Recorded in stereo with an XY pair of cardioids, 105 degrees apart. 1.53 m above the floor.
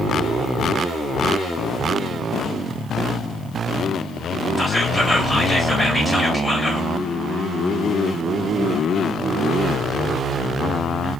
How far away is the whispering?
About 2 m.